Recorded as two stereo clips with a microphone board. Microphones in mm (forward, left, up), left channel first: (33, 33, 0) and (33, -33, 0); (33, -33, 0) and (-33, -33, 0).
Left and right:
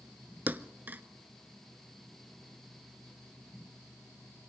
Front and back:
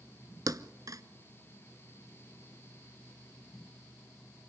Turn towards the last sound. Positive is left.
turn(degrees=-150)